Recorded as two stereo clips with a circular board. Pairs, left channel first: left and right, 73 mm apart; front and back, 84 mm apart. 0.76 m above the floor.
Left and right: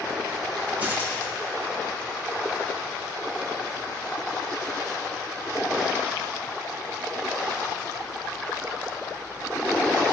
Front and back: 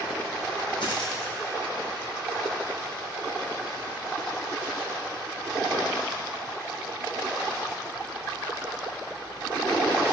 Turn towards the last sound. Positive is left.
turn(degrees=-20)